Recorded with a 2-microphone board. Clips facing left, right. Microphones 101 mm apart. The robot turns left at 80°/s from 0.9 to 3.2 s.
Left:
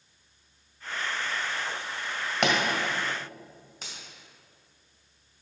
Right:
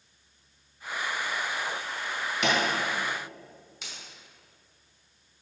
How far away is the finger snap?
About 2.5 m.